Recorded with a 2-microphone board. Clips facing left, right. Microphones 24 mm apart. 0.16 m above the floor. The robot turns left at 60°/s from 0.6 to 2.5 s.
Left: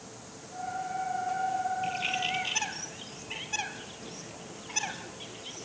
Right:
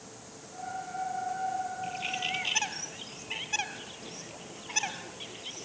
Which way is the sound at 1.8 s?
25° left (ahead or behind).